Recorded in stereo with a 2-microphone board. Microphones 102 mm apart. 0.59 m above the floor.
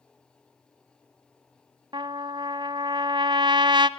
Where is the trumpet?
55° right (ahead or behind), 0.9 m.